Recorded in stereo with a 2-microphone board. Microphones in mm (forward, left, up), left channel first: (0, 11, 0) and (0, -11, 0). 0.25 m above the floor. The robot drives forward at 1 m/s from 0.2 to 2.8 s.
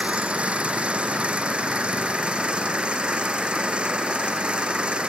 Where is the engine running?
65° right (ahead or behind); by 5.1 s 55° right (ahead or behind).